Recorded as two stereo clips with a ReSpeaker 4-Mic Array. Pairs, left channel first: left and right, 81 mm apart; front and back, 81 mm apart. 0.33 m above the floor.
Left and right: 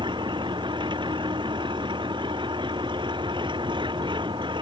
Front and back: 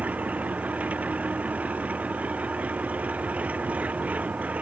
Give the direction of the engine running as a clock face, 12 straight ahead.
4 o'clock.